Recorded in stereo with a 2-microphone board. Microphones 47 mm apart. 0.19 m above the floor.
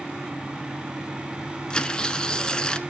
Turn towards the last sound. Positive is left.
turn(degrees=20)  # may be behind; listen again after turning